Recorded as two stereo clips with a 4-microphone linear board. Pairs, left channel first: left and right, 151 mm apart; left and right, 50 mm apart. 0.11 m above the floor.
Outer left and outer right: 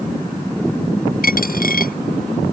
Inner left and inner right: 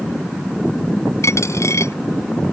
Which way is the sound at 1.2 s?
75° left (ahead or behind).